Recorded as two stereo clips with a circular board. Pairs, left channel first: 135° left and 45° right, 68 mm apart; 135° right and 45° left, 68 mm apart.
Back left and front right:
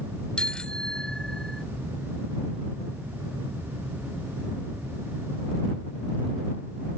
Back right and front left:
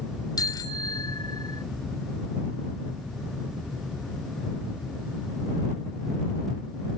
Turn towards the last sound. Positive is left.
turn(degrees=-140)